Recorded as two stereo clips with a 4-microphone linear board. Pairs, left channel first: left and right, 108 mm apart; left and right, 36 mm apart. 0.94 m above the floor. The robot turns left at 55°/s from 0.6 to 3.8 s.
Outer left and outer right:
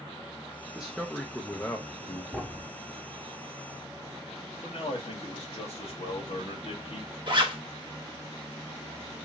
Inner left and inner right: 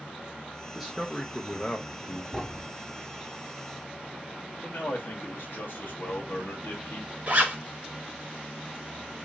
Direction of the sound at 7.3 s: 45° right (ahead or behind).